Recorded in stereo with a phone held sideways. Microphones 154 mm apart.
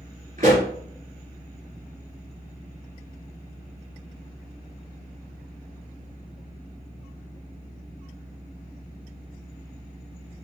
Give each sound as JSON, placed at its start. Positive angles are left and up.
{"t": 0.4, "sound": "a pop", "side_deg": -55, "distance_m": 2.5}